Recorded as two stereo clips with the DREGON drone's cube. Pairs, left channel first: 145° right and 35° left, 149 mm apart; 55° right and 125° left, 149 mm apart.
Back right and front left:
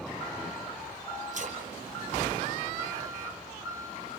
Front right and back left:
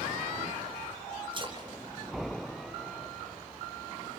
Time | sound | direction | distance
1.3 | a splash | 70° left | 3.5 m